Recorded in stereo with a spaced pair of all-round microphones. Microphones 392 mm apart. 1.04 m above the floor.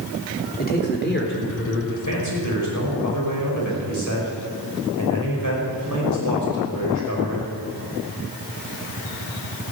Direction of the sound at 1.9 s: 45° left (ahead or behind).